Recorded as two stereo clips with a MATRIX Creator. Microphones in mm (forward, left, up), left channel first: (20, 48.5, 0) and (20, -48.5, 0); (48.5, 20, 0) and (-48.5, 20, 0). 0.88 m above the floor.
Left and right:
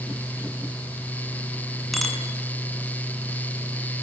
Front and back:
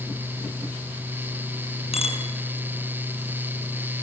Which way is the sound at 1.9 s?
Straight ahead.